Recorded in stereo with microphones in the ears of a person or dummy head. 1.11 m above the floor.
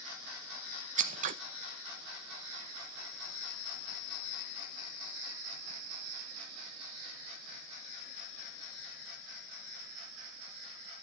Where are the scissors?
45° right (ahead or behind), 0.8 m.